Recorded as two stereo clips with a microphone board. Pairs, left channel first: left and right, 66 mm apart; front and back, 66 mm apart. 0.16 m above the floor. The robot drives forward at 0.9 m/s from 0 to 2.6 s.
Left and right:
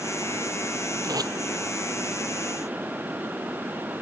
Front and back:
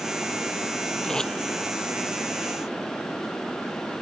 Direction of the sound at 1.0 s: 80° right.